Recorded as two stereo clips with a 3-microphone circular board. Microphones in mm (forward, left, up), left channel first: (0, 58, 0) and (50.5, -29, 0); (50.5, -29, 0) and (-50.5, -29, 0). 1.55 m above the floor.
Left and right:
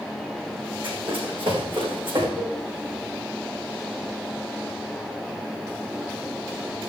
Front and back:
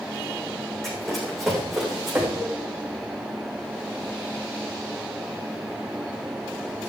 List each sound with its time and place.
0.8 s running footsteps: 90° right, 6 m; by 2.3 s 95° right, 6.5 m
2.4 s a cowbell: 100° right, 5.5 m